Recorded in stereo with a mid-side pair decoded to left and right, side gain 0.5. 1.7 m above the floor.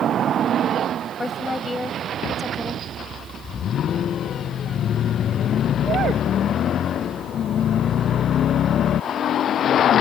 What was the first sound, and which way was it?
A woman speaking, 20° left.